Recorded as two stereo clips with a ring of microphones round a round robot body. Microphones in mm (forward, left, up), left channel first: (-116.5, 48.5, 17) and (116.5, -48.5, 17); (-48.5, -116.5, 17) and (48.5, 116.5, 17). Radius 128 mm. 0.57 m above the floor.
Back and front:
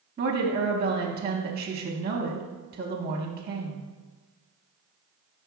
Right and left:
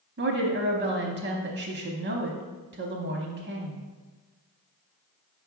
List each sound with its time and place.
0.2 s a woman speaking: 40° left, 0.8 m